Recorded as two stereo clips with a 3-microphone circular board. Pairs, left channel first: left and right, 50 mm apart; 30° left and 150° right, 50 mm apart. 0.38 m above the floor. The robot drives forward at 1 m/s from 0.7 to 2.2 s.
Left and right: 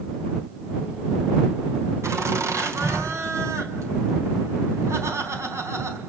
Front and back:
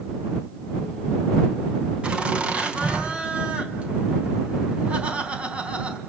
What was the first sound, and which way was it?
Laughter, 85° right.